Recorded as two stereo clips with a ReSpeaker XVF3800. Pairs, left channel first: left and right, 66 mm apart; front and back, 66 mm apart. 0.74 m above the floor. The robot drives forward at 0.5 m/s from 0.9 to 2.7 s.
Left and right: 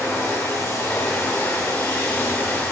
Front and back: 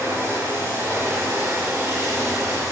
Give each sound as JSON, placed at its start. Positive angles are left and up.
{"t": 0.0, "sound": "running water", "azimuth_deg": 130, "distance_m": 4.5}